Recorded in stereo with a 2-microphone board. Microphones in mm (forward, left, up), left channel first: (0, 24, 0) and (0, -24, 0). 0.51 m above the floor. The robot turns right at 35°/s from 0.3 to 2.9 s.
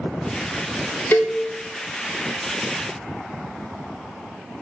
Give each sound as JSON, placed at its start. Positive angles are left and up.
{"t": 1.1, "sound": "a cowbell", "side_deg": 45, "distance_m": 0.6}